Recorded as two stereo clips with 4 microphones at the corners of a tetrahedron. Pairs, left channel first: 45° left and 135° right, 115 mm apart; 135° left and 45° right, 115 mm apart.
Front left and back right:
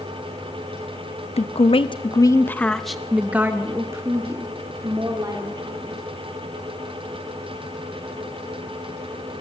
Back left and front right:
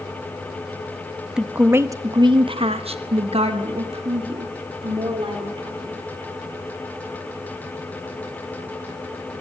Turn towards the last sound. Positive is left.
turn(degrees=-85)